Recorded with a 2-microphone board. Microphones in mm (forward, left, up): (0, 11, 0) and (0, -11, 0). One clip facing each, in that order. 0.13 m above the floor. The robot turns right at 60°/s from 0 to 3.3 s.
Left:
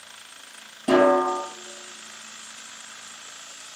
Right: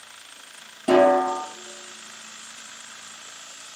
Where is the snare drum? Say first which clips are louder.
Right 1 dB; 20° right, 1.7 m; by 1.4 s 10° left, 1.7 m.